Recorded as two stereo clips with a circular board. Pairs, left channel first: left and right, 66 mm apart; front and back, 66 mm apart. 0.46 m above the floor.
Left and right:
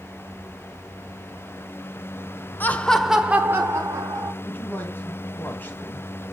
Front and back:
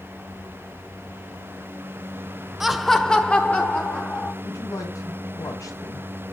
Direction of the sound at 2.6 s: 100° left.